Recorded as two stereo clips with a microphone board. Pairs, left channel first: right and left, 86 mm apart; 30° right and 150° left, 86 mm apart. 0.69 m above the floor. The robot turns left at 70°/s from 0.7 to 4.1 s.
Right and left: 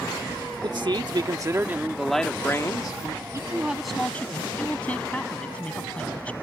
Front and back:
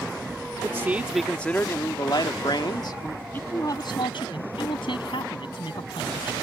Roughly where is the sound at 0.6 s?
Left.